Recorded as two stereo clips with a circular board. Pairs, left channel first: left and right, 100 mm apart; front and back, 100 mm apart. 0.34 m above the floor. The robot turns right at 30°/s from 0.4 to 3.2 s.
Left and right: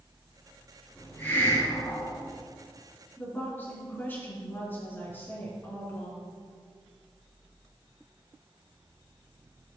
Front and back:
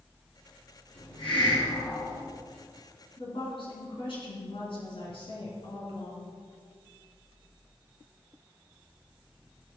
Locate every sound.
0.9 s a hiss: 15° left, 3 m; by 2.2 s 50° left, 3 m
3.2 s a woman speaking: 20° left, 4 m